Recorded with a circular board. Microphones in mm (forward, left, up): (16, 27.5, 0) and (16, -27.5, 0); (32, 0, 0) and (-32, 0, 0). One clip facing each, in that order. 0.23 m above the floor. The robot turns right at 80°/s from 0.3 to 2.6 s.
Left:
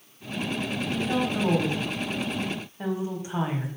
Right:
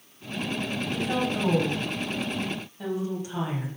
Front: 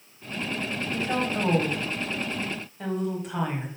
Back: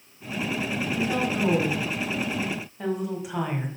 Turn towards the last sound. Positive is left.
turn(degrees=110)